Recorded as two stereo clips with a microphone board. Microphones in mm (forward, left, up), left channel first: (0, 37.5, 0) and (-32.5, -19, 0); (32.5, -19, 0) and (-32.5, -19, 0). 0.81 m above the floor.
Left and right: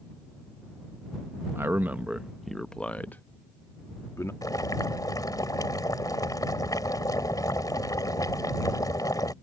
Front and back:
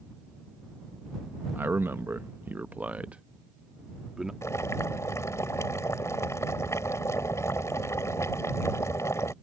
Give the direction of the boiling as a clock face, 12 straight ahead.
11 o'clock.